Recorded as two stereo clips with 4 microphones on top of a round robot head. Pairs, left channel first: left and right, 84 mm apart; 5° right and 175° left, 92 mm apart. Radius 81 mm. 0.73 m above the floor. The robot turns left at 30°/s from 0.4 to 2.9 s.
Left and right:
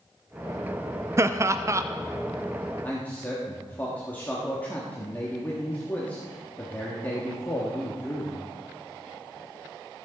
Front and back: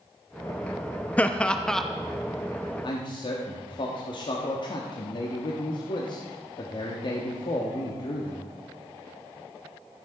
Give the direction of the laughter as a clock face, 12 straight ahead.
2 o'clock.